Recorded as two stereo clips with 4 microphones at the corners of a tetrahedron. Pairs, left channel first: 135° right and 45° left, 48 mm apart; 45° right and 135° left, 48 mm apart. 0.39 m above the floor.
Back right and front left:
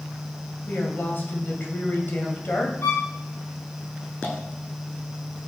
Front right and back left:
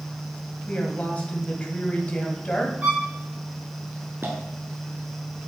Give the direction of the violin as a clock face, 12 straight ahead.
5 o'clock.